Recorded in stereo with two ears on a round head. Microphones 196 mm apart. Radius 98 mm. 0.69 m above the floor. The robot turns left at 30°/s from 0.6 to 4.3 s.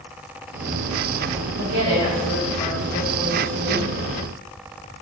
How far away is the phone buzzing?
I don't hear a phone buzzing.